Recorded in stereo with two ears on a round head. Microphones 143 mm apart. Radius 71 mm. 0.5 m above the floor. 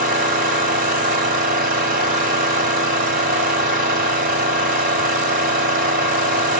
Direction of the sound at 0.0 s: 55° right (ahead or behind).